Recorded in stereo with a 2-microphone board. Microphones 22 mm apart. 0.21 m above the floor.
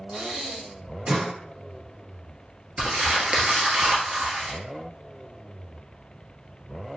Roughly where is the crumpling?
Right.